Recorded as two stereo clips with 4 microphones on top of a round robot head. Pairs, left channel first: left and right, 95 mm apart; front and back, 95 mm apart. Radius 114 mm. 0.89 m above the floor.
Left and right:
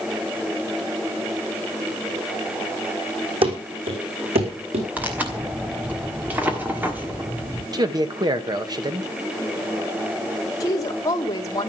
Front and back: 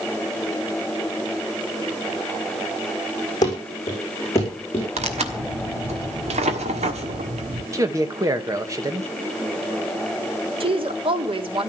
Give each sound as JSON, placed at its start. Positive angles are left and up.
{"t": 3.4, "sound": "running footsteps", "azimuth_deg": -60, "distance_m": 4.0}
{"t": 5.0, "sound": "tearing paper", "azimuth_deg": -165, "distance_m": 1.5}
{"t": 7.7, "sound": "a man speaking", "azimuth_deg": -130, "distance_m": 1.5}
{"t": 10.6, "sound": "a woman speaking", "azimuth_deg": 150, "distance_m": 1.8}